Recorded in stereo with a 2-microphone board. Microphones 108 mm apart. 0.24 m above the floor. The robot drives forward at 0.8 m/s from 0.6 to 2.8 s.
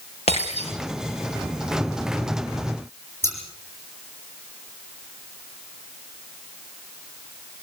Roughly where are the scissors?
Left.